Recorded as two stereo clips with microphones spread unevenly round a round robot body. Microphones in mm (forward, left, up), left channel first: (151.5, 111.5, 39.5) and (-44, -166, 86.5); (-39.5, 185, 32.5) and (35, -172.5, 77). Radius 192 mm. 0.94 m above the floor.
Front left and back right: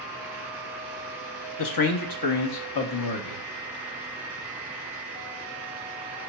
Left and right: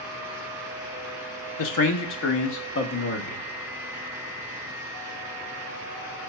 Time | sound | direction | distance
1.6 | a man speaking | 75° left | 1.1 m